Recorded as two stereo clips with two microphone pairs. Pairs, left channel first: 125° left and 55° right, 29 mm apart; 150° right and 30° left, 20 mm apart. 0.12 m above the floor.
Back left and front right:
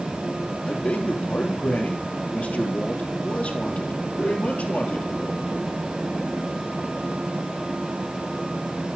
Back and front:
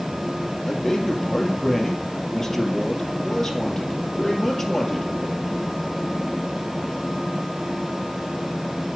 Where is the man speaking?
135° left, 2.5 m.